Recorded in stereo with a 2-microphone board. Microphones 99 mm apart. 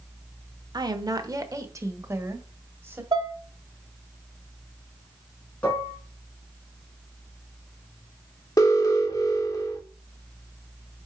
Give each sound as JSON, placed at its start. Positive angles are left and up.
{"t": 0.7, "sound": "a woman speaking", "side_deg": -45, "distance_m": 1.0}
{"t": 3.1, "sound": "dishes clattering", "side_deg": -45, "distance_m": 0.9}
{"t": 5.6, "sound": "dishes clattering", "side_deg": 10, "distance_m": 4.0}
{"t": 8.6, "sound": "an alarm", "side_deg": 35, "distance_m": 1.4}